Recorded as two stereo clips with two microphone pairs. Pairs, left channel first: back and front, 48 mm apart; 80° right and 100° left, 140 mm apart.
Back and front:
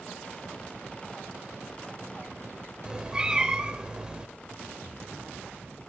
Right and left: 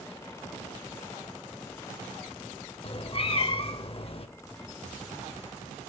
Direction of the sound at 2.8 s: 70° right.